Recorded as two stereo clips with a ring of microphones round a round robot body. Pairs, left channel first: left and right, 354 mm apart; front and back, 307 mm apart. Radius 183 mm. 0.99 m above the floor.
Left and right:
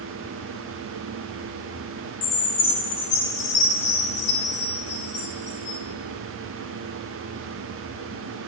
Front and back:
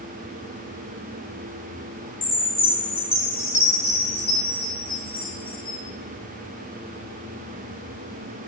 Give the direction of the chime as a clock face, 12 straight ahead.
10 o'clock.